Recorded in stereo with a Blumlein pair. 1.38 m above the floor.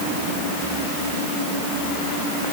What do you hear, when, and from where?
Only background noise.